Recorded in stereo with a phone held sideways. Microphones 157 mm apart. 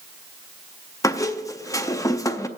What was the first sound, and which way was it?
A squeak, 20° left (ahead or behind).